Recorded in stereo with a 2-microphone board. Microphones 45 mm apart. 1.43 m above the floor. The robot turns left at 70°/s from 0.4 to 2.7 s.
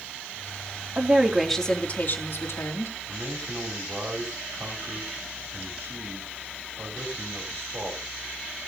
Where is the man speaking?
70° right (ahead or behind), 4 m.